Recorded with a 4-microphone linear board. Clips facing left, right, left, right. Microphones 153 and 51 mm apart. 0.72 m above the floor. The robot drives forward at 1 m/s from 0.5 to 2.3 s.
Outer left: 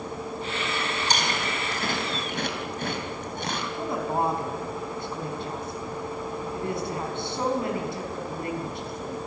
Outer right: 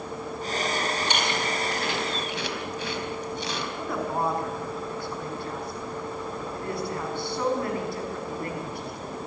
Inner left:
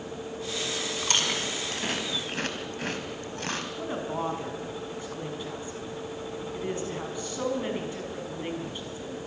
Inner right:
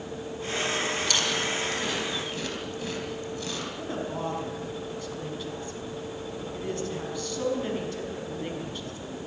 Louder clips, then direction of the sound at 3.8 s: Outer left 2 dB, inner left 1 dB; 20° left (ahead or behind).